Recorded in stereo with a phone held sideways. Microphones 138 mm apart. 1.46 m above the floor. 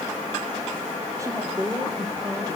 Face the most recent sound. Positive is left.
turn(degrees=-25)  # may be behind; listen again after turning